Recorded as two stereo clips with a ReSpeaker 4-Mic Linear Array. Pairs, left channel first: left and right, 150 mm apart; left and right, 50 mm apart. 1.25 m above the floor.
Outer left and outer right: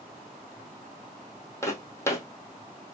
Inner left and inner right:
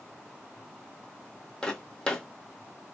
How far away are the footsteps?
About 1.8 m.